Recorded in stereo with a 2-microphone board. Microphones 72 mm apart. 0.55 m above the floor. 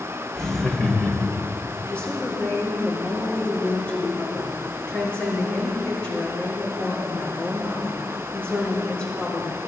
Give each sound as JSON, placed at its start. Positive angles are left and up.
{"t": 0.3, "sound": "laughter", "side_deg": 10, "distance_m": 2.0}
{"t": 1.9, "sound": "a woman speaking", "side_deg": 20, "distance_m": 7.5}